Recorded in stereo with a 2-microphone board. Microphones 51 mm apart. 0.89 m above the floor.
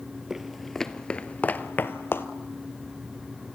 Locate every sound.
0.3 s footsteps: 5° right (ahead or behind), 1.1 m; by 2.3 s 50° left (ahead or behind), 1.3 m